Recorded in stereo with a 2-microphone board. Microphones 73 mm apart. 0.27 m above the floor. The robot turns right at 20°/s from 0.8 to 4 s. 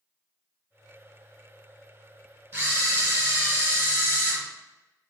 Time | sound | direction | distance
2.5 | a camera shutter | 25° right (ahead or behind) | 1.6 m